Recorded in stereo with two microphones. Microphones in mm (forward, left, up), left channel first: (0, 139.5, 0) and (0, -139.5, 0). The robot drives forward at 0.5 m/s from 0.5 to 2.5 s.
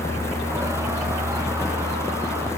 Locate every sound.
Only background noise.